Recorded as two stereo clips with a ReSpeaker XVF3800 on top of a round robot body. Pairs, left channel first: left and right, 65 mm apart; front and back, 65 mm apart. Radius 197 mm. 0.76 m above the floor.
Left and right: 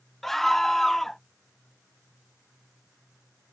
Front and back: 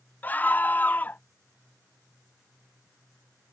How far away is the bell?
I don't hear a bell.